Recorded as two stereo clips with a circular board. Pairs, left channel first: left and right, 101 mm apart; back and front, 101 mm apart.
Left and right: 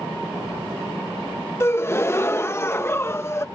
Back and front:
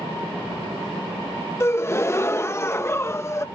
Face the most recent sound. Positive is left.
turn(degrees=135)